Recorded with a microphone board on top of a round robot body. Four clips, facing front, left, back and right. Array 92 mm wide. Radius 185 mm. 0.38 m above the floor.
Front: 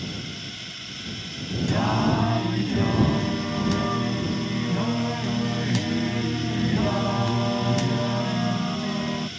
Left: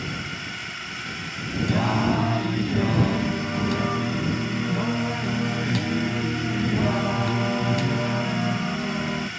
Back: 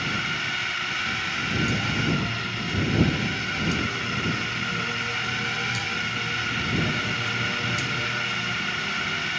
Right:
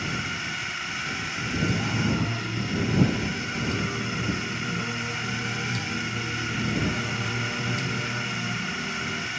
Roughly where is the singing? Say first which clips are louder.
Left 8 dB, front 4 dB; ahead left.